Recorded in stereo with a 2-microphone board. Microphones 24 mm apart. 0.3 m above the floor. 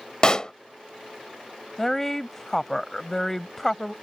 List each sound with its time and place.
0.2 s a pop: 30° left (ahead or behind)
1.8 s a woman speaking: 15° left (ahead or behind)